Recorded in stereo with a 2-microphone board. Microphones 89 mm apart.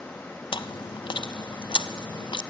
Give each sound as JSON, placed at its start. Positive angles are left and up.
{"t": 0.5, "sound": "chewing", "side_deg": 70, "distance_m": 0.7}